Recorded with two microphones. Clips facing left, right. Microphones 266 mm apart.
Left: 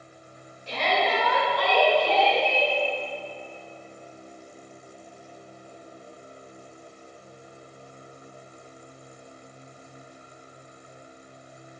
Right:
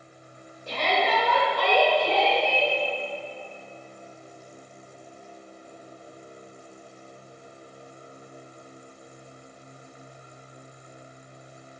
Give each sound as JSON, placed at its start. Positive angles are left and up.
{"t": 0.7, "sound": "a shout", "side_deg": -50, "distance_m": 2.5}